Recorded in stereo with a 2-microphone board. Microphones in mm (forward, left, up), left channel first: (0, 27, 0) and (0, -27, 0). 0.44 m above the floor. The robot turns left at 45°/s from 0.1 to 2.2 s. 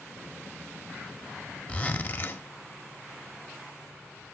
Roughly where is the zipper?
Left.